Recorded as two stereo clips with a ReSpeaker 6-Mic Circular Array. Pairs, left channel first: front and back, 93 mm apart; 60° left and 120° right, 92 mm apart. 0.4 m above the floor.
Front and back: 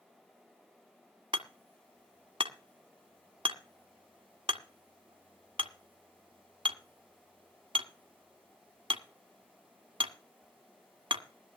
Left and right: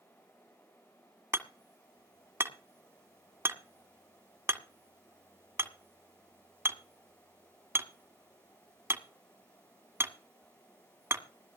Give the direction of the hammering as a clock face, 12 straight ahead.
6 o'clock.